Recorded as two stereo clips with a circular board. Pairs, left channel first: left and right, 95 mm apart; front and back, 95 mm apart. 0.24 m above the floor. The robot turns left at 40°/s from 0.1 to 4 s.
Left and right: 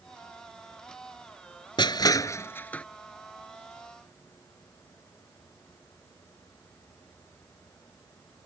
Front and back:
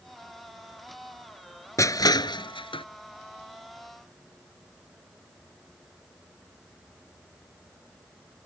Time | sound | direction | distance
1.8 | crushing | 55° left | ?